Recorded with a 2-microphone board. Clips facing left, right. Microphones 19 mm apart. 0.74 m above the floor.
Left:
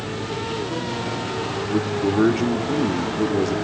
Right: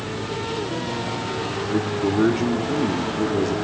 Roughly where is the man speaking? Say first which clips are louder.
Left 1 dB; centre.